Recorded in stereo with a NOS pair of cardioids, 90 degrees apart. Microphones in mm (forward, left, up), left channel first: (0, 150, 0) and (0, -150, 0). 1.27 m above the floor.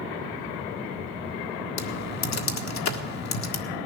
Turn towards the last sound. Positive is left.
turn(degrees=60)